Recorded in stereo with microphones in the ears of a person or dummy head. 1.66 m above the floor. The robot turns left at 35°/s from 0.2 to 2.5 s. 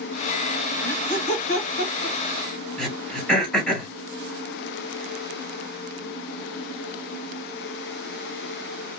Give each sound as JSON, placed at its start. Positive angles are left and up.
{"t": 0.8, "sound": "laughter", "side_deg": 55, "distance_m": 1.9}
{"t": 2.8, "sound": "throat clearing", "side_deg": 5, "distance_m": 1.4}